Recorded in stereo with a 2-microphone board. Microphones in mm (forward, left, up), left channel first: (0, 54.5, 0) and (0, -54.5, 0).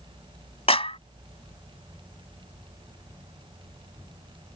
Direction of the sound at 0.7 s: 65° left (ahead or behind).